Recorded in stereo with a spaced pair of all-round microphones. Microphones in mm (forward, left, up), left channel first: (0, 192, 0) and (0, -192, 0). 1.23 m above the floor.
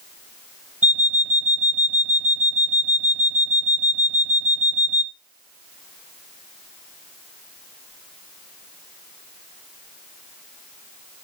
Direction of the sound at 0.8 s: 5° right (ahead or behind).